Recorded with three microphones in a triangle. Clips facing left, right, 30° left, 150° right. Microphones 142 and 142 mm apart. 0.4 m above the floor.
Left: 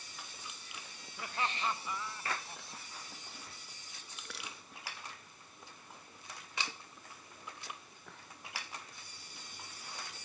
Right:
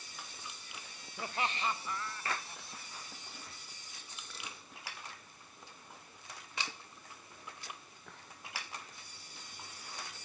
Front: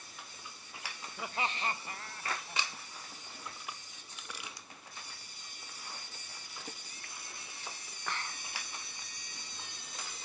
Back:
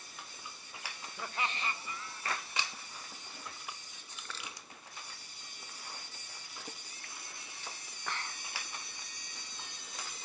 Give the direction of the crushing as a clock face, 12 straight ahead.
8 o'clock.